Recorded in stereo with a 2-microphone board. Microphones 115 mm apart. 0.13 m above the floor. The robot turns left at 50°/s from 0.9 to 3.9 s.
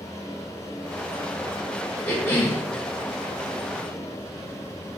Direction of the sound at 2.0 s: 10° left (ahead or behind).